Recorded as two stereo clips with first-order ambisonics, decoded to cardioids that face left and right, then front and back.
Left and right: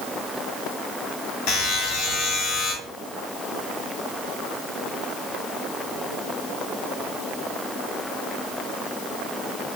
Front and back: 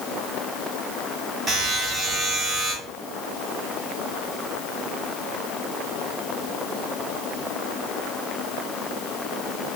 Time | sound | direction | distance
1.5 | a buzzer | 115° left | 1.9 m